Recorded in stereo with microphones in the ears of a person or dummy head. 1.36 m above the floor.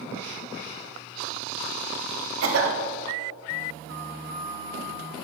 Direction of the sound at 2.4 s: 85° right.